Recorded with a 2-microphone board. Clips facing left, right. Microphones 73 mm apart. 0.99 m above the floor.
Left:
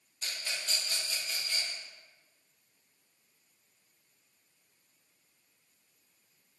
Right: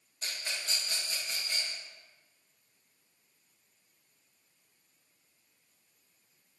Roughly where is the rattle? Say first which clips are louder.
Even; right.